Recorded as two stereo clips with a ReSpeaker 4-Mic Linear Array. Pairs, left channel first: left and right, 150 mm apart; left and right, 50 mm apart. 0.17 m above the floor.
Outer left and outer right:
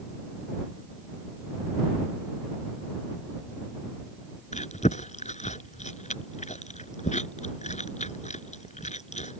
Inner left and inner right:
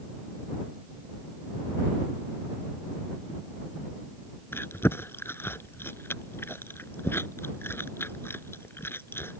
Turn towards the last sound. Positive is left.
turn(degrees=55)  # may be behind; listen again after turning